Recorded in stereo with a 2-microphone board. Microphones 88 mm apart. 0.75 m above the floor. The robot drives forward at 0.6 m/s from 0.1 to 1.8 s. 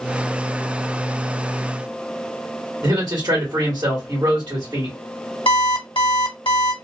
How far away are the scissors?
I don't hear scissors.